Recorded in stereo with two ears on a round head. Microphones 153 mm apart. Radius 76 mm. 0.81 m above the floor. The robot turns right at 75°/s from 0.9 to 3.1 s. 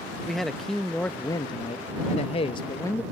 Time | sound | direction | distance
0.3 | a man speaking | 5° left | ?